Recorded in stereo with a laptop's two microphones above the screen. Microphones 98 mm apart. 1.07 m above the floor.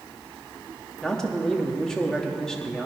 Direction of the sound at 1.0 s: 5° left (ahead or behind).